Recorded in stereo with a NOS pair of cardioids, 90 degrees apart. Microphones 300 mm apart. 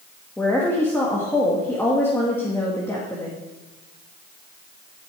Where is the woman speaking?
10° left, 2 m.